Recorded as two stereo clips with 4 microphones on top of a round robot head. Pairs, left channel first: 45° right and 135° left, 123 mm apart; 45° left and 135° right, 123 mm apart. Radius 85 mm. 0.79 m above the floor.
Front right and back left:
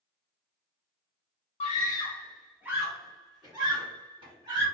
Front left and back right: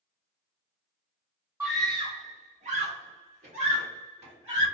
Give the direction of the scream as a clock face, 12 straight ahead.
2 o'clock.